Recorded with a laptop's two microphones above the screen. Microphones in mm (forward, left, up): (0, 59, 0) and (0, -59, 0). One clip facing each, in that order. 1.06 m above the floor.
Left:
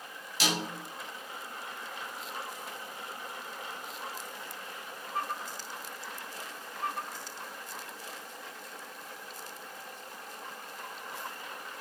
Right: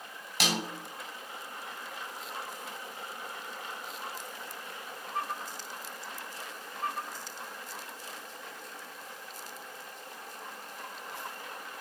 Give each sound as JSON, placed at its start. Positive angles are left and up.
{"t": 0.4, "sound": "a snare drum", "side_deg": -55, "distance_m": 3.0}